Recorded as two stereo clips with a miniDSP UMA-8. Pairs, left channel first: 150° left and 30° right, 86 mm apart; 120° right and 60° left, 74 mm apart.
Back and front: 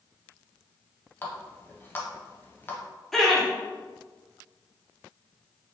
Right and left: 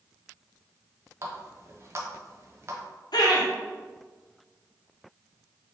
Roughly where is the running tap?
Left.